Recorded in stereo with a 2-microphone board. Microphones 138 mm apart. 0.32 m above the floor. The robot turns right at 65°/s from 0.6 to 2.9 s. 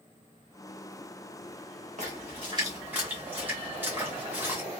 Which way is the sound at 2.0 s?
60° right (ahead or behind).